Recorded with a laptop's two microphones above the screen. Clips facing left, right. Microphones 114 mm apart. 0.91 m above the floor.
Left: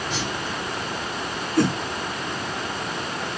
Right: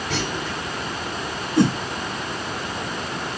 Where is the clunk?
70° right (ahead or behind), 4 m.